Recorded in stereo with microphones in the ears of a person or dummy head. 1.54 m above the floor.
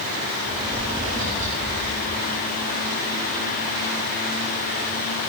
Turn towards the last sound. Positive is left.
turn(degrees=-85)